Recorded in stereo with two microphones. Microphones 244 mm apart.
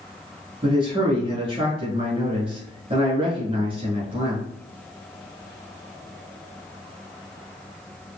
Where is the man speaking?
25° right (ahead or behind), 1.1 m.